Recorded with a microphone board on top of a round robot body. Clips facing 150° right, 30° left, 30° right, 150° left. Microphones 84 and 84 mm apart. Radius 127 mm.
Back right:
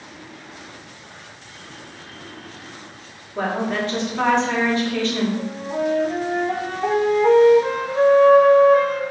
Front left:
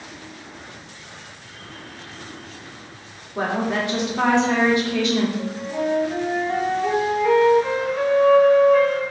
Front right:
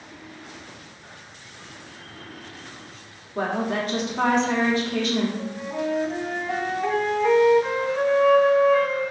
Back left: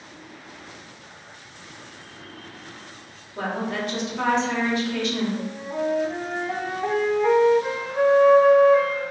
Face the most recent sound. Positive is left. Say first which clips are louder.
# back right 1 dB, back left 1 dB
turn(degrees=-130)